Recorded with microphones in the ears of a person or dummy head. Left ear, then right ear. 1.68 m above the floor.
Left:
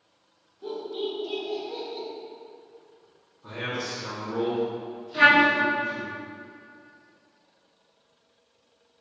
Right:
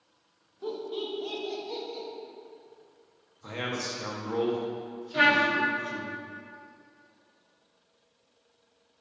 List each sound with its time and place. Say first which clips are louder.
0.6 s laughter: left 2 dB; 35° right (ahead or behind), 0.7 m; by 2.0 s 65° right (ahead or behind), 1.3 m
3.4 s a man speaking: left 1 dB; 75° right (ahead or behind), 0.8 m
5.1 s a trumpet: left 5 dB; 40° right (ahead or behind), 0.9 m